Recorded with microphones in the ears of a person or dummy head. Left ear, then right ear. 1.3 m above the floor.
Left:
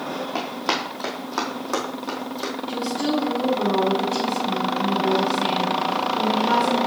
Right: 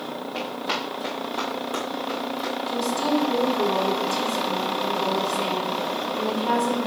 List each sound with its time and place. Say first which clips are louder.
0.3 s running footsteps: left 2 dB; 50° left (ahead or behind), 2 m; by 2.5 s 60° left (ahead or behind), 2.5 m
2.7 s a woman speaking: right 1 dB; 35° right (ahead or behind), 1.8 m